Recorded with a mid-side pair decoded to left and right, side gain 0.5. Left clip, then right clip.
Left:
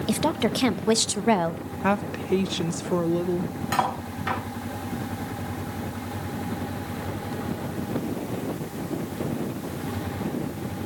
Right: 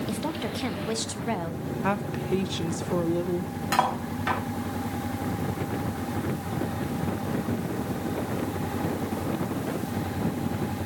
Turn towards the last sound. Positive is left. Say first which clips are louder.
# right 1 dB
turn(degrees=-15)